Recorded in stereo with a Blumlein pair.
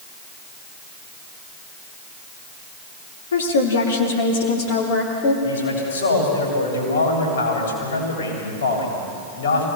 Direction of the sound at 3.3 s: 65° left.